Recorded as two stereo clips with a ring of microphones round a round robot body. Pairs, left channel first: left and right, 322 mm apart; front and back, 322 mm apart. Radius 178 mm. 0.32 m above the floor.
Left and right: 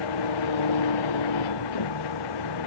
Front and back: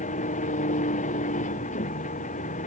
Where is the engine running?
70° left.